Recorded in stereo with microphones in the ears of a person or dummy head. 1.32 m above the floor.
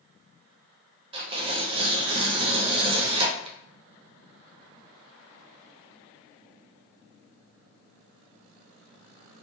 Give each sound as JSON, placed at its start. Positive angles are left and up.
{"t": 1.1, "sound": "tearing paper", "side_deg": -30, "distance_m": 0.6}